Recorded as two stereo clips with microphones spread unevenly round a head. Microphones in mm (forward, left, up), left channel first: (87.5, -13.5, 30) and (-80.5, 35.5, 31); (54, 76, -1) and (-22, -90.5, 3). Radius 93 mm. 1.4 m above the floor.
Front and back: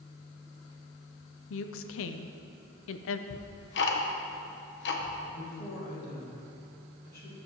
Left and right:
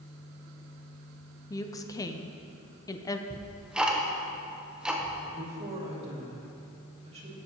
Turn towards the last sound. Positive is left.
turn(degrees=-55)